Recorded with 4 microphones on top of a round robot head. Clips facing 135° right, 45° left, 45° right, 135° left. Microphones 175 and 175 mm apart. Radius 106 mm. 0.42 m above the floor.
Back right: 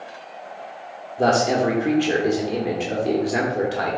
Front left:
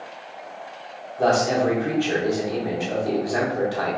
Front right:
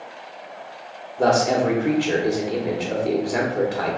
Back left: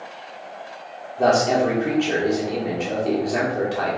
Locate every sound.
1.2 s a man speaking: 125° right, 0.9 m